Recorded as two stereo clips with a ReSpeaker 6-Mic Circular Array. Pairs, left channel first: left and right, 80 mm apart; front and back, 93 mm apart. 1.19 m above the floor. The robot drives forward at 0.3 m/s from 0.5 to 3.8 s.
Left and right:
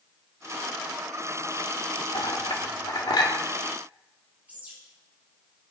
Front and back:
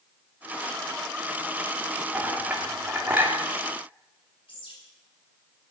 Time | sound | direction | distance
2.1 | a clink | 105° left | 2.5 m
4.5 | a bird | 20° right | 6.5 m